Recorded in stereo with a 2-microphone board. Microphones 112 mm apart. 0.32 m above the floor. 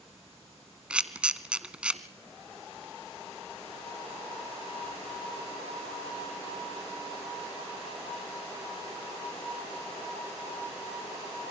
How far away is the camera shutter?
About 1.1 m.